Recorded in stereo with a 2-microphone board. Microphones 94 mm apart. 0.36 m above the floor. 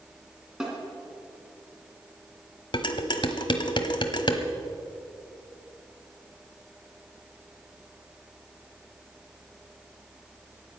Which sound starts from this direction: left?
Dishes clattering, at 2.7 s.